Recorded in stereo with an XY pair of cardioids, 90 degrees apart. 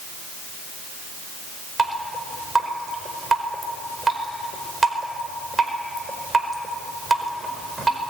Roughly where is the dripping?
Ahead right.